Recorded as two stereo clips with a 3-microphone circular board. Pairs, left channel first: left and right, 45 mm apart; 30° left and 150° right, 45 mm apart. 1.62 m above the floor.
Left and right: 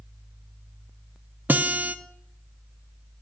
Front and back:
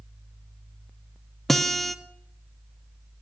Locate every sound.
1.5 s a guitar: 55° right, 0.8 m